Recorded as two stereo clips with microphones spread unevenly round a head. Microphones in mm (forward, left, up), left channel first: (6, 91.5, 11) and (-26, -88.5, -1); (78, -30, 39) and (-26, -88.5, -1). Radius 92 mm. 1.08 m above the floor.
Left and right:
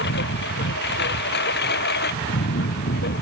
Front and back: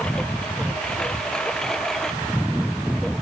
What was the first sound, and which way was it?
A lawn mower, 115° left.